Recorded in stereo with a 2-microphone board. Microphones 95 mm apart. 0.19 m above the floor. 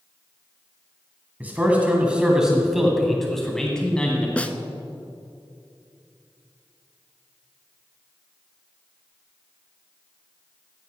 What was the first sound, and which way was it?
A man speaking, 15° right (ahead or behind).